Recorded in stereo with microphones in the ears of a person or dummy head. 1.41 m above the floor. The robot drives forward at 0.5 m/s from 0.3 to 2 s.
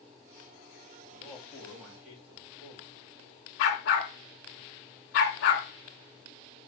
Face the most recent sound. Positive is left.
turn(degrees=45)  # may be behind; listen again after turning